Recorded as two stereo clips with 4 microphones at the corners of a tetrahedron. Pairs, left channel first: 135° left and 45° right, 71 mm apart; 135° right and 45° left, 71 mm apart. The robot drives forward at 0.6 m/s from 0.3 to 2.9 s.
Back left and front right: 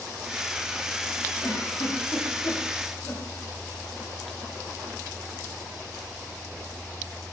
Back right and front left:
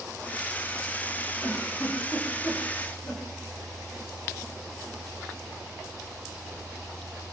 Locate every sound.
1.4 s a giggle: 175° left, 8 m